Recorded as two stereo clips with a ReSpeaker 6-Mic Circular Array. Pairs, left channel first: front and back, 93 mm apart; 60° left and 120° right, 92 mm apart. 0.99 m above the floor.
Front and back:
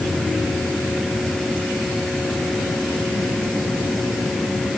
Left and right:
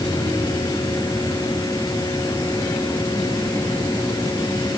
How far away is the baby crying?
I don't hear a baby crying.